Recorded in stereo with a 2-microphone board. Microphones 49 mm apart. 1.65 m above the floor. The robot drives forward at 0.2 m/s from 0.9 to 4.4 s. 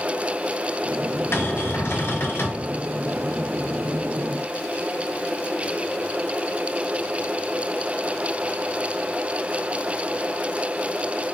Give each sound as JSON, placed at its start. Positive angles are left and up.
{"t": 1.3, "sound": "a cupboard door", "side_deg": 70, "distance_m": 1.0}